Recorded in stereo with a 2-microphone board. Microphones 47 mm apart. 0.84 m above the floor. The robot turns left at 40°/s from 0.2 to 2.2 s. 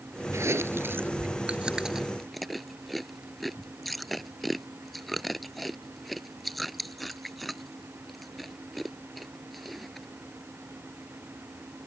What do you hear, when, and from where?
0.3 s chewing: 70° right (ahead or behind); by 10.1 s 5° left (ahead or behind)